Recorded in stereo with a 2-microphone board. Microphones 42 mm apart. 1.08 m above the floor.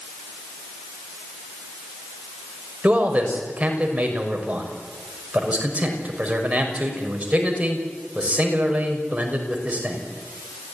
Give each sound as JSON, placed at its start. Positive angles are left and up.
{"t": 2.8, "sound": "a man speaking", "side_deg": -30, "distance_m": 5.5}